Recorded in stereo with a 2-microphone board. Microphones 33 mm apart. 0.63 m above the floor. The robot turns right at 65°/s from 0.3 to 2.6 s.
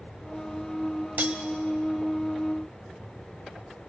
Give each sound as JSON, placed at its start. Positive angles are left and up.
{"t": 1.2, "sound": "cutlery clinking", "side_deg": -60, "distance_m": 1.9}